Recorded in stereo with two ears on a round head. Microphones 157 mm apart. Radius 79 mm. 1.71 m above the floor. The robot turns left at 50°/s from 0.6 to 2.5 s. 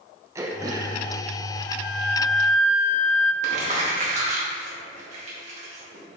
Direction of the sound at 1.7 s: 135° left.